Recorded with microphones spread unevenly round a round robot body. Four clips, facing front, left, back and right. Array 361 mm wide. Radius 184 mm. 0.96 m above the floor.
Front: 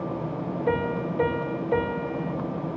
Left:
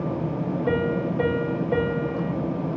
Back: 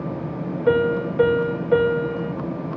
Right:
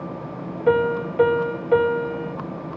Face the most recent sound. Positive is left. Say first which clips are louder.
# right 7 dB, back 8 dB
turn(degrees=-150)